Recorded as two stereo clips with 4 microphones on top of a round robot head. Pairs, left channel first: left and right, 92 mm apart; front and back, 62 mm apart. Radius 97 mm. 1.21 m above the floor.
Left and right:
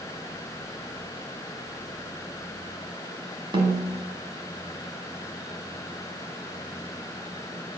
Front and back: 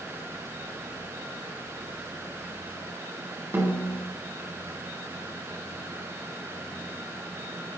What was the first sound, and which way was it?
A snare drum, 125° right.